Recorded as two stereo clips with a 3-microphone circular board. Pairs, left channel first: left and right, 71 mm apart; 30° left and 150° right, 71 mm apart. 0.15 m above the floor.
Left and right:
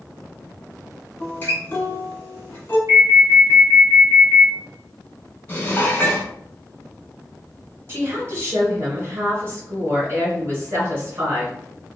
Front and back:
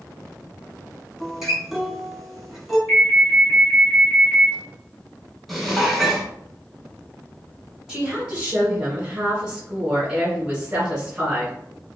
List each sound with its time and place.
1.2 s a guitar: 130° left, 1.2 m
2.9 s an alarm: 75° right, 1.5 m
5.5 s dishes clattering: 115° left, 0.8 m
7.9 s a woman speaking: 85° right, 1.8 m